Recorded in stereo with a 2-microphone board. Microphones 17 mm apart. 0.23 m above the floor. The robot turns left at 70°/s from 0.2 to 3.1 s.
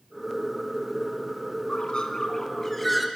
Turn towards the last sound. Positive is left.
turn(degrees=-10)